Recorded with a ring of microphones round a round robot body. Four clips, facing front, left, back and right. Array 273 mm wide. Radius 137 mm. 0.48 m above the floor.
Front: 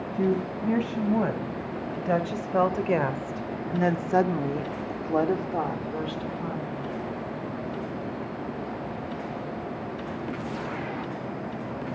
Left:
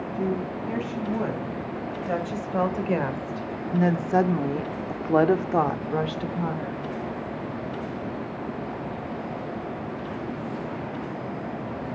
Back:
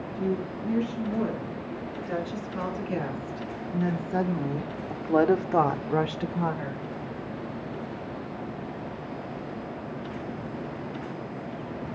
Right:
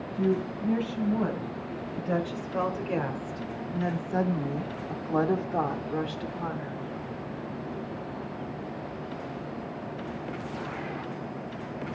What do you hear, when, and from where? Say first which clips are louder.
0.1 s a woman speaking: right 1 dB, front 4 dB; 10° left, 3.5 m; by 6.8 s 165° left, 1.5 m